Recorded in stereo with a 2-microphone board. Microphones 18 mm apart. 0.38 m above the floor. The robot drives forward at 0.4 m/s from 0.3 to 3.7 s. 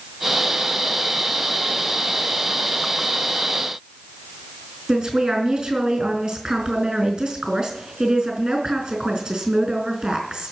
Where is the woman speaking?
50° right (ahead or behind), 5.5 m.